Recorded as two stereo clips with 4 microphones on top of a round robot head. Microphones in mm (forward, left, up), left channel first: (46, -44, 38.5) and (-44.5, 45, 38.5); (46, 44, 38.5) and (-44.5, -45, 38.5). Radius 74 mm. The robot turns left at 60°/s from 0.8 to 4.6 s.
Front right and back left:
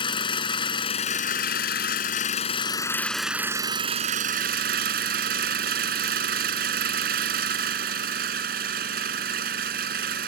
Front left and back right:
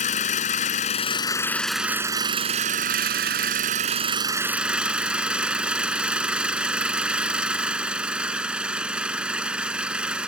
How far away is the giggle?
No giggle in this recording.